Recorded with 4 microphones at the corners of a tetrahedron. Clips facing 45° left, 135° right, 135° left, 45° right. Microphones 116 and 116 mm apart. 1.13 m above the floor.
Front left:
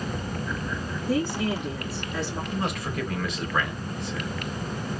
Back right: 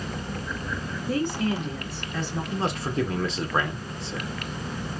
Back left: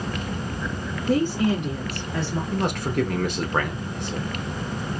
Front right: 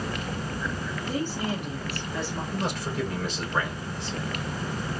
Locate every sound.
1.1 s a woman speaking: 130° left, 3.5 m
2.5 s a man speaking: 165° left, 3 m